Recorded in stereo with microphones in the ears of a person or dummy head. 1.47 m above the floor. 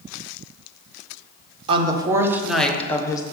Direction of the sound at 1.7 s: 30° right (ahead or behind).